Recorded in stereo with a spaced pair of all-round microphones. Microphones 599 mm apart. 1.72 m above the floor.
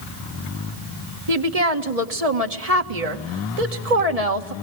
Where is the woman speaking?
70° right (ahead or behind), 2 m.